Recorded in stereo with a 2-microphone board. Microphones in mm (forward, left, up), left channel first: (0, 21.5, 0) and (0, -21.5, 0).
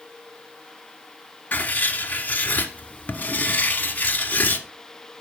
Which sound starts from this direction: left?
Writing, at 1.5 s.